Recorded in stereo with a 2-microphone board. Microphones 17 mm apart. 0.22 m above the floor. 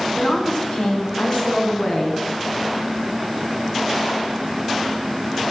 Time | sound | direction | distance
0.1 | a woman speaking | 40° left (ahead or behind) | 2 m